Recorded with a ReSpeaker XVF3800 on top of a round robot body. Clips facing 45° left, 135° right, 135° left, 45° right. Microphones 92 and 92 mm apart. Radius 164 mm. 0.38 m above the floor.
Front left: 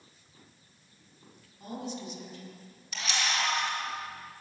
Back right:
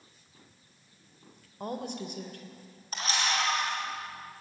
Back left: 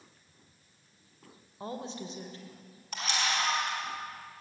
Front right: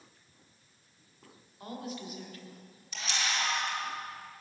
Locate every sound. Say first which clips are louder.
1.6 s a woman speaking: back right 3 dB, back left 2 dB; 165° right, 2.5 m
2.9 s a camera shutter: back right 2 dB, back left 3 dB; 175° left, 5 m